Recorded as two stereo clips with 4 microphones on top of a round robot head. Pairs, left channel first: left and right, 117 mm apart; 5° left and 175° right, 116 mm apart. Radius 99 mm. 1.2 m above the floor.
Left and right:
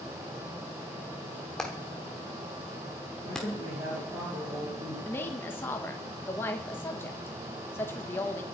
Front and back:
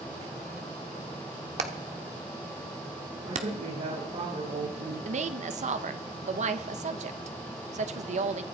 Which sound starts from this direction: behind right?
A man speaking, at 3.2 s.